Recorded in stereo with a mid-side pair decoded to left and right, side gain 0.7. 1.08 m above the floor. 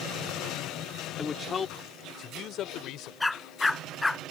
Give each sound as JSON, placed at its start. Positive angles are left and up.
{"t": 1.2, "sound": "a man speaking", "azimuth_deg": 20}
{"t": 3.2, "sound": "a dog barking", "azimuth_deg": 10}